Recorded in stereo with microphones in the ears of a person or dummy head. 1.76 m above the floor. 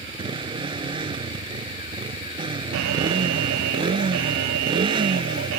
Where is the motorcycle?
20° right (ahead or behind).